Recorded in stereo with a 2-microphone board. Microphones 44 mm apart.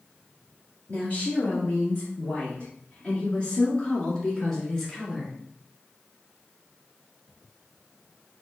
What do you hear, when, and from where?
0.9 s a woman speaking: 30° left (ahead or behind), 2.5 m; by 5.3 s 10° left (ahead or behind), 1.9 m